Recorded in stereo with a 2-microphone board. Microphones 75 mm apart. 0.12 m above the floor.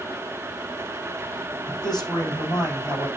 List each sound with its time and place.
1.7 s a man speaking: 65° left (ahead or behind), 6.5 m